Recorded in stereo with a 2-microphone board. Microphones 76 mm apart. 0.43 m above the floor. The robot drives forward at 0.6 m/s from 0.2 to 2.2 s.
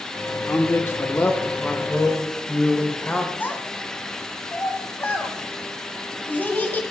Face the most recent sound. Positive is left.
turn(degrees=25)  # may be behind; listen again after turning